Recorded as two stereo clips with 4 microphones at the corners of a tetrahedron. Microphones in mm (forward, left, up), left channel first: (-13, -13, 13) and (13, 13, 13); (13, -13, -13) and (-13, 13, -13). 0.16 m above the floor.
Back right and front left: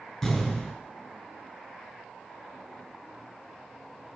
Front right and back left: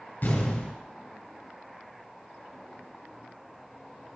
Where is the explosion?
55° right, 2.5 m.